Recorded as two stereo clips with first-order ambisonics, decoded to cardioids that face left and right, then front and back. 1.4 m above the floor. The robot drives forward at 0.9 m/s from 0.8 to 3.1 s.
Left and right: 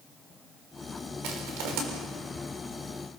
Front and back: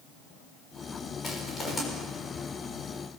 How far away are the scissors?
I don't hear scissors.